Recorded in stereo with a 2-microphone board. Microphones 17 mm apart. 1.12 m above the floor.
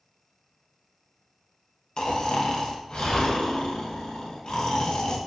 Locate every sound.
2.0 s snoring: 40° left (ahead or behind), 0.5 m